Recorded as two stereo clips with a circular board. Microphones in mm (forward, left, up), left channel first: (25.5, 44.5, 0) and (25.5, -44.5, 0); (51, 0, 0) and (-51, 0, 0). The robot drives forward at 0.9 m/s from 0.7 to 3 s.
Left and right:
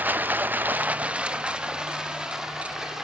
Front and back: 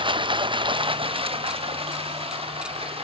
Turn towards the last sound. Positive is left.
turn(degrees=-175)